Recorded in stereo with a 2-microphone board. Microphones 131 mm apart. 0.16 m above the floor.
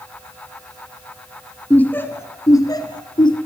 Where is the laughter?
10° left (ahead or behind), 2.5 m; by 3.4 s 40° left (ahead or behind), 3 m.